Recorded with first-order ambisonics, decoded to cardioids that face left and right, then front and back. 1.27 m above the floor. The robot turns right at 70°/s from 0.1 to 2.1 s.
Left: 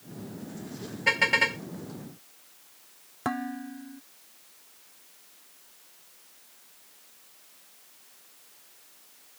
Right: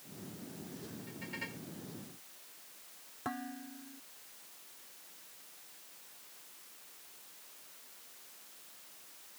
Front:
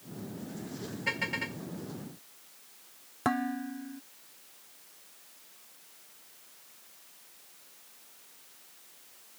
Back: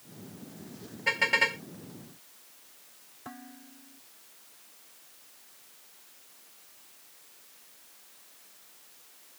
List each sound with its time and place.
1.1 s a car horn: 100° left; by 1.6 s 140° left
3.2 s dishes clattering: 35° left